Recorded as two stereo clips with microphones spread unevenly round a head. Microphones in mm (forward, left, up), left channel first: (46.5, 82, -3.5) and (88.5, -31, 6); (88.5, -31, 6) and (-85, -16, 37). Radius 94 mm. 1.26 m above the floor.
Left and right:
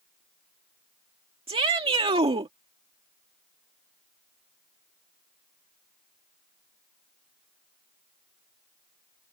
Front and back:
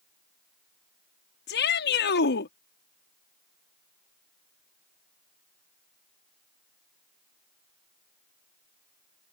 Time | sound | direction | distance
1.5 | a shout | 25° right | ?